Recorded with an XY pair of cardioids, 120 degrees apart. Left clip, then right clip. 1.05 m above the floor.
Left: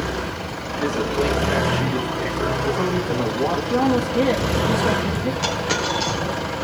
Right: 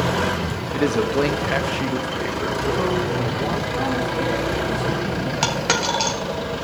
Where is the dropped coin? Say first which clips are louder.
Right 3 dB; 60° right, 2.5 m.